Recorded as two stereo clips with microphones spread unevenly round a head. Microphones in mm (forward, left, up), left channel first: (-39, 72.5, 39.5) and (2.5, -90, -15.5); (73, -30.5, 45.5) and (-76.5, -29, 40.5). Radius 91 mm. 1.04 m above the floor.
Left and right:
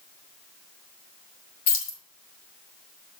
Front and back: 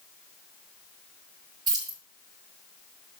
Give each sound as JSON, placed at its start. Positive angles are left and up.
{"t": 1.7, "sound": "keys jangling", "azimuth_deg": 115, "distance_m": 1.5}